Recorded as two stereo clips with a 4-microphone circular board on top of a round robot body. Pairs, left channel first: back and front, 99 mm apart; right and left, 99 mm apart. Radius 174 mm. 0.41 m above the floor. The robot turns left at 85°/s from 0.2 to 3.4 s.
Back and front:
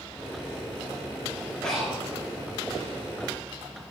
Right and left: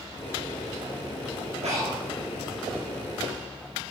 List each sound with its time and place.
1.6 s breathing: 100° left, 5 m; by 2.0 s 65° left, 5 m